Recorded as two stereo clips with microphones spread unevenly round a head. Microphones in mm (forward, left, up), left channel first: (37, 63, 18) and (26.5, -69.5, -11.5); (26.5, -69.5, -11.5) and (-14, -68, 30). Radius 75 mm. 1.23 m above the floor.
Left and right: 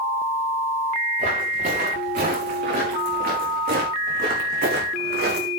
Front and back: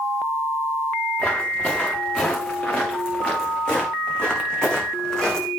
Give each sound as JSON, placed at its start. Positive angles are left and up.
{"t": 1.2, "sound": "footsteps", "azimuth_deg": -70, "distance_m": 8.5}